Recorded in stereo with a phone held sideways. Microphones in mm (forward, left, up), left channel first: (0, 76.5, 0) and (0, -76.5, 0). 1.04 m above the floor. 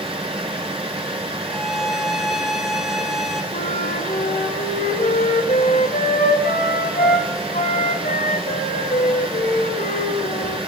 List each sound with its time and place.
0.0 s a fan: 40° right (ahead or behind), 1.8 m
1.4 s a violin: centre (ahead or behind), 1.0 m
3.5 s a flute: 70° left (ahead or behind), 1.9 m